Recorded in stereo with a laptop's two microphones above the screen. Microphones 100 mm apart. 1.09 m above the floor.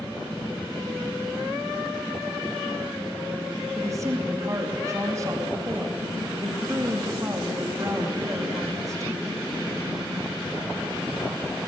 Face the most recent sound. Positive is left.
turn(degrees=-30)  # may be behind; listen again after turning